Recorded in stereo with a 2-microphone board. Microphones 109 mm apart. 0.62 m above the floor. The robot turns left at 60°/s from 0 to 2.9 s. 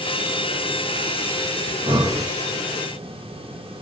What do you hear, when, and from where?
1.7 s breathing: 80° right, 1.4 m; by 2.3 s 120° right, 1.4 m